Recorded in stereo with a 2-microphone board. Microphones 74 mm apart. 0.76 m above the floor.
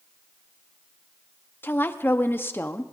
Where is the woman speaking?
30° left (ahead or behind), 0.9 m.